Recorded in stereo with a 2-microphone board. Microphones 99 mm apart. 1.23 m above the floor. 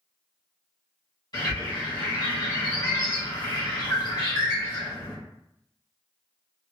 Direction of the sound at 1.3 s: 40° left (ahead or behind).